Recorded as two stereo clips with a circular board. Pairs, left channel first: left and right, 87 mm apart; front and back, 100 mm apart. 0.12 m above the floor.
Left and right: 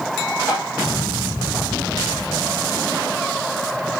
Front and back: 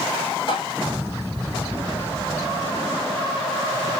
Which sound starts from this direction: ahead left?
Tapping, at 0.5 s.